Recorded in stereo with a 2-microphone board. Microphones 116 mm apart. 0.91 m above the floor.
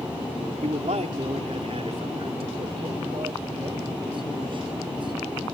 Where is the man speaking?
70° right (ahead or behind); by 5.5 s 45° right (ahead or behind).